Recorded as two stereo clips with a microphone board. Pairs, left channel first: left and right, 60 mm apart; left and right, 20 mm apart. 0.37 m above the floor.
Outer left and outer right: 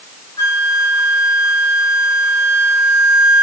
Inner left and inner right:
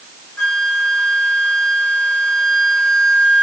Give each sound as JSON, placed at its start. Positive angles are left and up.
{"t": 0.4, "sound": "a flute", "side_deg": 50, "distance_m": 2.5}